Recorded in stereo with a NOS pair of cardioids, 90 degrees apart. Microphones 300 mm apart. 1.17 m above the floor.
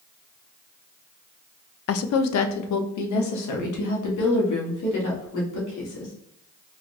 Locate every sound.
1.9 s a woman speaking: 50° left, 0.5 m; by 6.1 s 80° left, 3 m